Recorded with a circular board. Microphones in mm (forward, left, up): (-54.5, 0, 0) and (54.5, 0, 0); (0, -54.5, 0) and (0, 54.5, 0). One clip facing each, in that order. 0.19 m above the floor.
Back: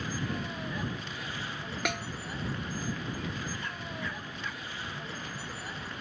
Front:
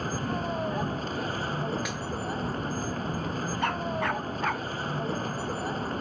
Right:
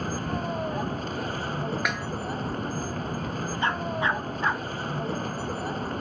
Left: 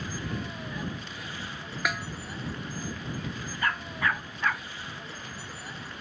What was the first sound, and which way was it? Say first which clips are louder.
A vehicle: front 5 dB, right 6 dB; 45° right.